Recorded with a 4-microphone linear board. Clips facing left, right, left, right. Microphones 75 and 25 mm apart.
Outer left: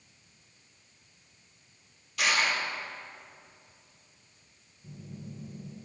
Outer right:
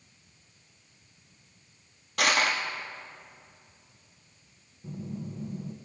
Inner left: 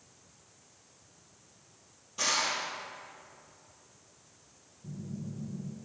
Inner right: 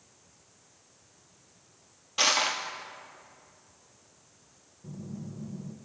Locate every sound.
2.2 s crushing: 55° right (ahead or behind), 1.6 m
4.8 s a phone buzzing: 50° right (ahead or behind), 0.9 m